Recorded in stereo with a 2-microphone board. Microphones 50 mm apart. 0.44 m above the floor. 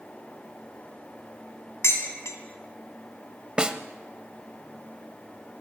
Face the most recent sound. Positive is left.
turn(degrees=-20)  # may be behind; listen again after turning